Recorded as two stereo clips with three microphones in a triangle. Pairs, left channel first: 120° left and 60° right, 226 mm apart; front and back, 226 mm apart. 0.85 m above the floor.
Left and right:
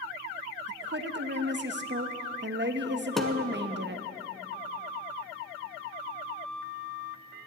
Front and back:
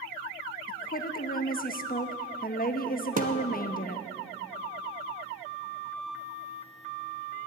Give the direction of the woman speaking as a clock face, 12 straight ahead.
1 o'clock.